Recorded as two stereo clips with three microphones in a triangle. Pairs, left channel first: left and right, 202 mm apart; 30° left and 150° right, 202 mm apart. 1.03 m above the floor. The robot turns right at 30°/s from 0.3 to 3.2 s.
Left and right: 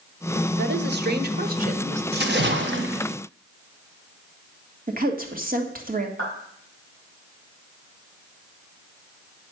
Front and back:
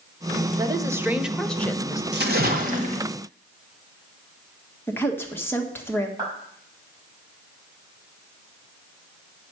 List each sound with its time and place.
0.6 s a woman speaking: 85° right, 1.0 m; by 2.0 s 40° right, 1.0 m
2.1 s a splash: 120° right, 1.7 m; by 3.1 s 95° right, 1.7 m
4.9 s a woman speaking: 50° right, 1.7 m
6.2 s a clap: 80° right, 6 m